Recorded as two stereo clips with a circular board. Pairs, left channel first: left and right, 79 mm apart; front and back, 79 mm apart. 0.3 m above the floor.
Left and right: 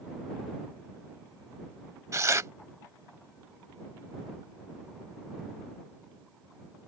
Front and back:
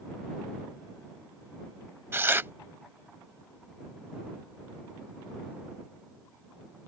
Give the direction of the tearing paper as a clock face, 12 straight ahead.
4 o'clock.